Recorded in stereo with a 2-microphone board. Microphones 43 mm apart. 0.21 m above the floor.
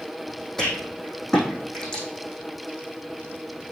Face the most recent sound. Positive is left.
turn(degrees=10)  # may be behind; listen again after turning